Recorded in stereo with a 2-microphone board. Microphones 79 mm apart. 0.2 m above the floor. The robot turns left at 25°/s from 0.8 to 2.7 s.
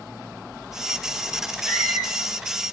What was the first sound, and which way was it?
A squeak, 20° left (ahead or behind).